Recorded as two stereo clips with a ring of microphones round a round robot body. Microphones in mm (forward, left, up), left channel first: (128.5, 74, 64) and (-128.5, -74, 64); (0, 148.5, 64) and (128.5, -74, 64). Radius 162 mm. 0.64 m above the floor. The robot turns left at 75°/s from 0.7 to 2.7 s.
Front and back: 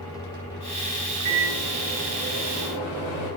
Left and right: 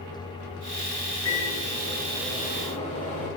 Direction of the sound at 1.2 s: 170° left.